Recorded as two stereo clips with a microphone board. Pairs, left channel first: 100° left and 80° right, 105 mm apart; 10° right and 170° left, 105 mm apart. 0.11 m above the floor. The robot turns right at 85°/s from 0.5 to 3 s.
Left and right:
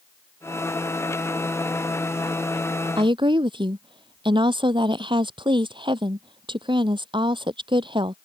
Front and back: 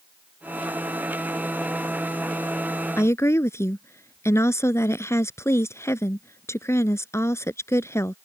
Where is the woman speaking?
75° right; by 8.2 s 70° right.